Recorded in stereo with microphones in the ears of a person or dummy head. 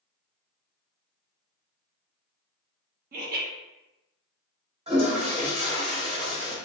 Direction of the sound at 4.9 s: 30° right (ahead or behind).